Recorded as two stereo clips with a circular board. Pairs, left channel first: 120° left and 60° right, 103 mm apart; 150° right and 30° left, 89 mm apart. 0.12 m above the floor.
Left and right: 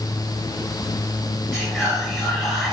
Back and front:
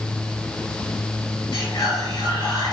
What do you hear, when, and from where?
1.5 s whispering: 150° right, 1.5 m